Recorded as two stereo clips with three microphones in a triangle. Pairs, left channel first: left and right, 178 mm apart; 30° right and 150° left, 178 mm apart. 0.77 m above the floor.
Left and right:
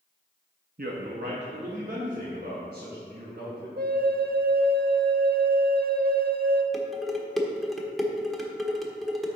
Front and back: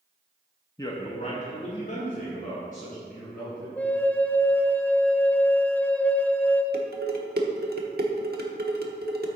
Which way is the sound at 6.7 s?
Straight behind.